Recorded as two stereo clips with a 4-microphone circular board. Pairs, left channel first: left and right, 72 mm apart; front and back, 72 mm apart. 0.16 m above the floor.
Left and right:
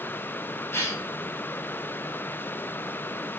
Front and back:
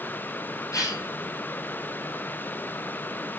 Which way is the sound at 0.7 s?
35° left.